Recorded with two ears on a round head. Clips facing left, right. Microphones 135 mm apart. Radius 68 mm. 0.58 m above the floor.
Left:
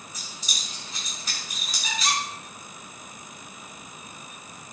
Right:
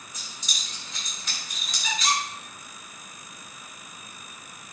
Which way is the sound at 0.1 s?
5° left (ahead or behind).